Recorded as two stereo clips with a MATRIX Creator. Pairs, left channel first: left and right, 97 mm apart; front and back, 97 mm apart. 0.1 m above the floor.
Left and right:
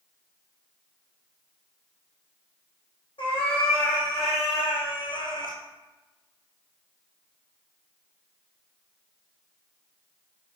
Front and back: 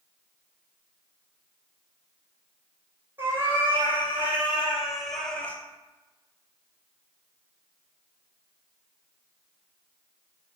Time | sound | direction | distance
3.2 | a cat meowing | 110° left | 2.5 m